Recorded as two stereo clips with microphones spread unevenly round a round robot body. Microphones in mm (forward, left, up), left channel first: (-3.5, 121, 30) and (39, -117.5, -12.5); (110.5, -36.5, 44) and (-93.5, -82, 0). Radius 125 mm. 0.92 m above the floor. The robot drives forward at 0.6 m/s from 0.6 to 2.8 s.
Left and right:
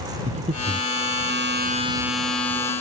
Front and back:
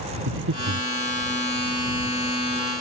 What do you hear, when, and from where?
0.3 s breathing: 145° right; by 0.9 s 150° right